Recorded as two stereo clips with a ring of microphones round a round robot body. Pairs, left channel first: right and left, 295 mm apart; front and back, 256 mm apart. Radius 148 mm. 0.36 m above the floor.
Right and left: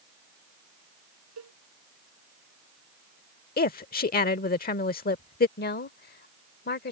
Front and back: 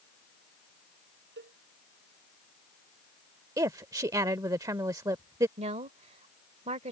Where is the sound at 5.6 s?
130° right.